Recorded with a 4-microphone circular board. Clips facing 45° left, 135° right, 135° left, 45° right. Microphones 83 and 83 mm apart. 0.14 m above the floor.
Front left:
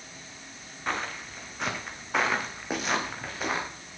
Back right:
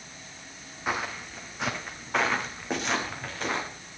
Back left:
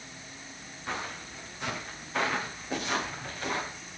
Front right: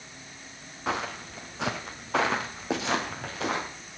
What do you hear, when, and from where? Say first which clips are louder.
0.9 s footsteps: back right 1 dB, front right 6 dB; 55° right, 3 m; by 3.7 s 35° right, 6 m